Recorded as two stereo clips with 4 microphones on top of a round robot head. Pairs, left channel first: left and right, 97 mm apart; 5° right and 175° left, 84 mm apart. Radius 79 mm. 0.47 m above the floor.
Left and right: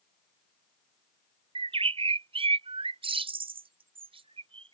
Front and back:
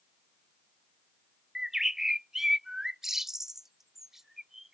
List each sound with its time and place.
1.6 s a bird: 100° right